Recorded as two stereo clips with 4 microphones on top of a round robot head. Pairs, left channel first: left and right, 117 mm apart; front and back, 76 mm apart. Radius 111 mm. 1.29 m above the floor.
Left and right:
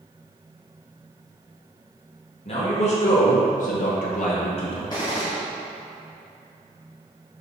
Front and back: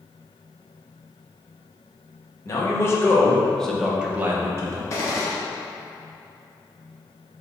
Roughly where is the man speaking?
Ahead left.